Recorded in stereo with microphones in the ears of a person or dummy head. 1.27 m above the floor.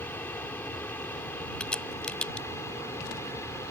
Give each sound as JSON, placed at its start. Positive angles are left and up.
{"t": 0.0, "sound": "an aircraft", "side_deg": 10}
{"t": 1.6, "sound": "a crack", "side_deg": 5}